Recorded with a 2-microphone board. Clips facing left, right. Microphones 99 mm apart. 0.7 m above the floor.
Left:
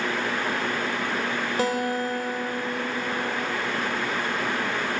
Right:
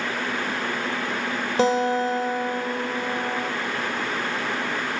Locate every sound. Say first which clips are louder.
1.6 s a guitar: right 6 dB; 25° right (ahead or behind), 1.4 m